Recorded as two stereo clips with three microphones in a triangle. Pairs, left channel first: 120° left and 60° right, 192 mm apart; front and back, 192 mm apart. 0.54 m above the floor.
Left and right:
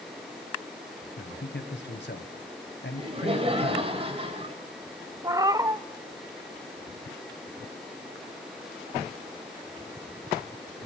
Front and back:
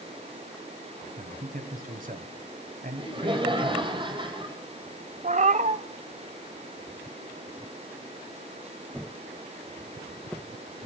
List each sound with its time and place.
1.2 s a man speaking: 140° left, 2.5 m
3.0 s laughter: 115° right, 3.5 m
5.2 s a cat meowing: 130° right, 0.7 m